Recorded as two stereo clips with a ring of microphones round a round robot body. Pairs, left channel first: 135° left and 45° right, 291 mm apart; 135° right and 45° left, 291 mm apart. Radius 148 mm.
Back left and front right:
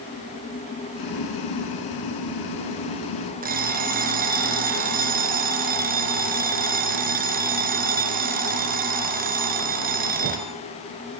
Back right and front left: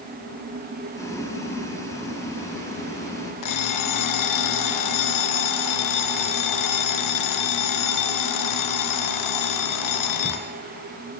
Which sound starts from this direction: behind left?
Boiling, at 0.9 s.